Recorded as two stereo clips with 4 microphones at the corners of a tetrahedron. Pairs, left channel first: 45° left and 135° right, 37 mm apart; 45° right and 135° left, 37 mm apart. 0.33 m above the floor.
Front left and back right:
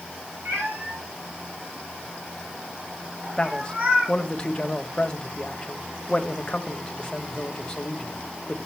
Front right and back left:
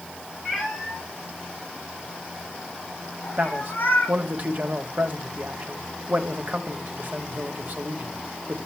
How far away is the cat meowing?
About 3.5 m.